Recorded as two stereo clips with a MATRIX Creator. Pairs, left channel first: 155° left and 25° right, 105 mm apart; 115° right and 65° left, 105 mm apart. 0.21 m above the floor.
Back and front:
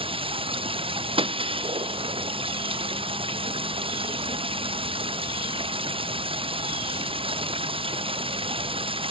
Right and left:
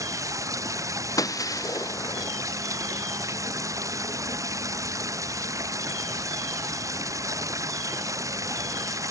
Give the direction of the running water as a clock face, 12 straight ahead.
12 o'clock.